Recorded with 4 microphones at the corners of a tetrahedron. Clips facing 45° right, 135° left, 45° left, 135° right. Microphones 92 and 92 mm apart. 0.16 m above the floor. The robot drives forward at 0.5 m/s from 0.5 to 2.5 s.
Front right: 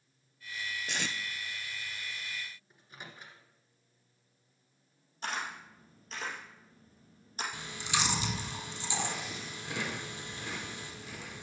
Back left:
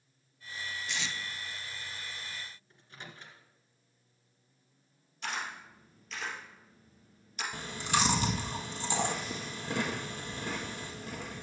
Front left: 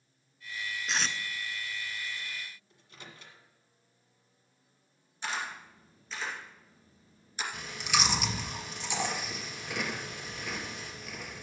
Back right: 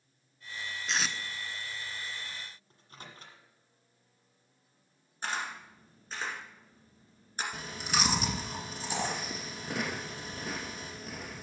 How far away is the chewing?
About 1.4 m.